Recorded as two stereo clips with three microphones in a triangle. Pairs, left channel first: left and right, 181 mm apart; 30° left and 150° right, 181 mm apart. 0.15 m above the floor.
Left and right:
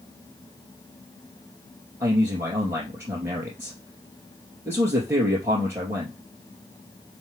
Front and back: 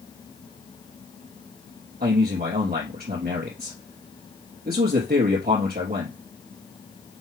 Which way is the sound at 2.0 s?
165° right.